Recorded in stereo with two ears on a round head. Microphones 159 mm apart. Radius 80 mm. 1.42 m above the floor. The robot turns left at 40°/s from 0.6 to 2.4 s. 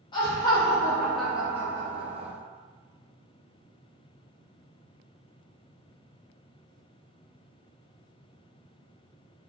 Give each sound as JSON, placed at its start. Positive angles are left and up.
{"t": 0.1, "sound": "laughter", "azimuth_deg": 25, "distance_m": 0.7}